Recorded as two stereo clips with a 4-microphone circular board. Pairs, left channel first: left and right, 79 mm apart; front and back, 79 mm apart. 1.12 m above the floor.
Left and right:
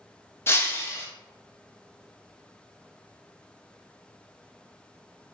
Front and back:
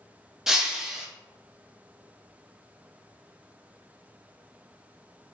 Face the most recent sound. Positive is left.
turn(degrees=100)